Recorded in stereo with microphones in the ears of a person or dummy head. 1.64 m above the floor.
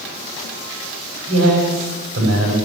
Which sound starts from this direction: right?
A man speaking, at 1.3 s.